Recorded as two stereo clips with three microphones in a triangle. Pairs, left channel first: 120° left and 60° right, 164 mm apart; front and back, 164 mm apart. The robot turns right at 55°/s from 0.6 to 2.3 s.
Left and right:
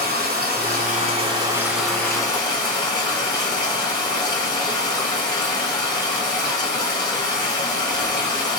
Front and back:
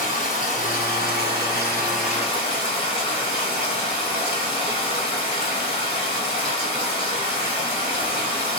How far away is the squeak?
I don't hear a squeak.